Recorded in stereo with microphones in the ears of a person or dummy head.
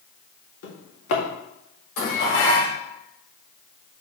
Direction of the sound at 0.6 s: 55° left (ahead or behind).